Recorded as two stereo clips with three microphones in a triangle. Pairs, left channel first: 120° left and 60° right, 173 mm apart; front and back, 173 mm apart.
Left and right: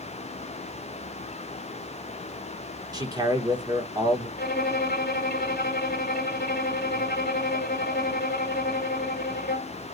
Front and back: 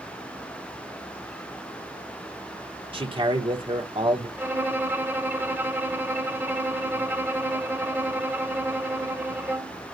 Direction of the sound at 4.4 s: 105° left.